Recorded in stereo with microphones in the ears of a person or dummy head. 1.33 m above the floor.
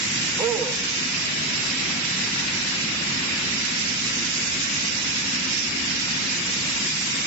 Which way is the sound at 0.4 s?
20° right (ahead or behind).